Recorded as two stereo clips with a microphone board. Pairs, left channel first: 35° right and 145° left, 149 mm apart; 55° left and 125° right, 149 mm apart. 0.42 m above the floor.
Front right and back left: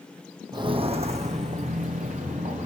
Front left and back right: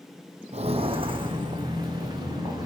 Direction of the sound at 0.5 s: 160° right.